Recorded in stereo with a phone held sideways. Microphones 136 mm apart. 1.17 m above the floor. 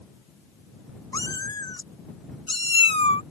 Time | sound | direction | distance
1.1 | a cat meowing | 25° left (ahead or behind) | ?